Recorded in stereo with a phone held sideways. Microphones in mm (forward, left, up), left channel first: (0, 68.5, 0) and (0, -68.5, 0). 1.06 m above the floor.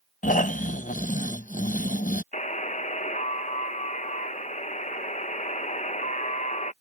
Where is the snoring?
80° left.